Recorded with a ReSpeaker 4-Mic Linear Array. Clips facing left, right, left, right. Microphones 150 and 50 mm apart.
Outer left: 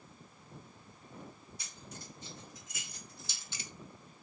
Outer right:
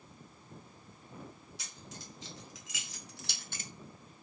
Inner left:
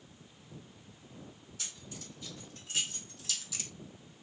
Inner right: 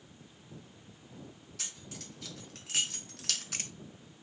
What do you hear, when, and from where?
1.6 s keys jangling: 80° right, 1.7 m; by 3.7 s 35° right (ahead or behind), 0.5 m